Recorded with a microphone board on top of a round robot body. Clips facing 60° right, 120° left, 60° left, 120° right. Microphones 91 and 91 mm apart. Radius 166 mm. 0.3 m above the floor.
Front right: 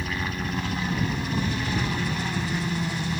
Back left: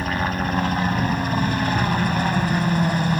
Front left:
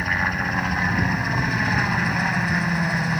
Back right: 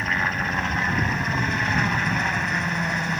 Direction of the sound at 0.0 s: 145° left.